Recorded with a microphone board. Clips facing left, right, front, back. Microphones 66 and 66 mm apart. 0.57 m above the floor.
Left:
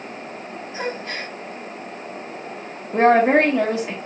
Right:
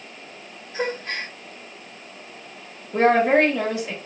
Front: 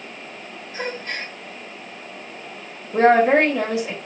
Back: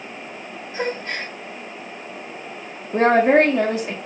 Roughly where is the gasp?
Behind right.